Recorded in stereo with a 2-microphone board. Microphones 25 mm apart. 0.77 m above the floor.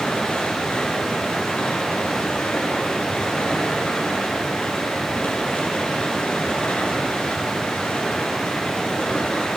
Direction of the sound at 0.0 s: 80° left.